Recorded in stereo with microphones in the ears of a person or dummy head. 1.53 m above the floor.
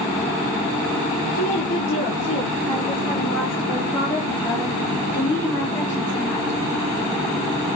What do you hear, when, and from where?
1.4 s a woman speaking: 50° left (ahead or behind), 4 m; by 6.6 s 10° left (ahead or behind), 5 m